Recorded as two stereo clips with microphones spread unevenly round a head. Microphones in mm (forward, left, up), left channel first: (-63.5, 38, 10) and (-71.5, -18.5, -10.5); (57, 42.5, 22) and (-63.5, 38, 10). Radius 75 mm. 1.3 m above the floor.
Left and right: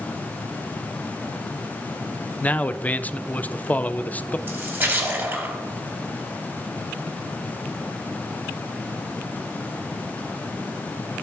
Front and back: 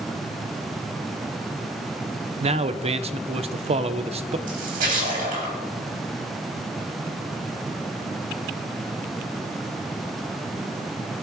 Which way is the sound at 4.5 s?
145° right.